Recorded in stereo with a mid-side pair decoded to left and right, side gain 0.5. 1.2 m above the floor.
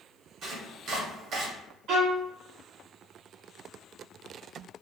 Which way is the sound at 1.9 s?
70° right.